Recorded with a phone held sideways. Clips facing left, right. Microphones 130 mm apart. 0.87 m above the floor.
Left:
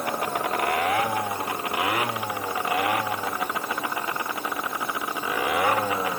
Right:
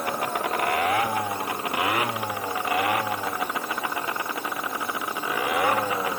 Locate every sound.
Only background noise.